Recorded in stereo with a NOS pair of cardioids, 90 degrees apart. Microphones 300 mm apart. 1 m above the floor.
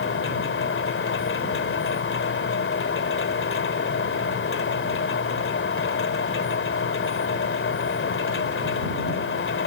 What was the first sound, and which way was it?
A machine running, 40° left.